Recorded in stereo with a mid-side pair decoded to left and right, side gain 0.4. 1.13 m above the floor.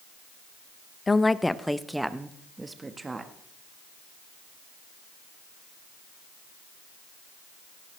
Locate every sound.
1.1 s a woman speaking: 30° left, 0.7 m; by 3.3 s 30° right, 1.5 m